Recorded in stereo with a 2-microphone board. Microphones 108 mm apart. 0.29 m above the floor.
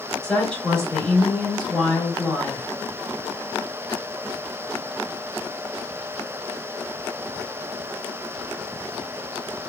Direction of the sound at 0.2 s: 5° left (ahead or behind).